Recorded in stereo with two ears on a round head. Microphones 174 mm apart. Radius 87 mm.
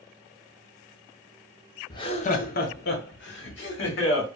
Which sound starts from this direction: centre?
Laughter, at 1.9 s.